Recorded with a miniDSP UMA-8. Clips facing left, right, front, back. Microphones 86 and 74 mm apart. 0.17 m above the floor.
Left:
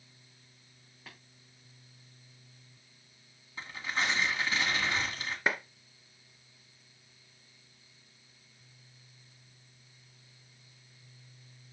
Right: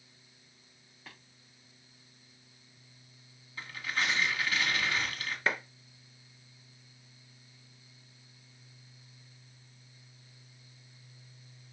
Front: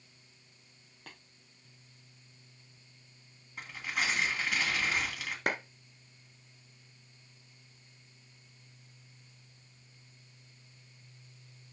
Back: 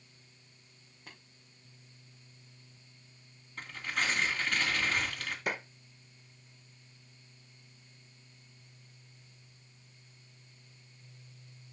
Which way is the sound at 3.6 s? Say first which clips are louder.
Left 1 dB, even; 65° left.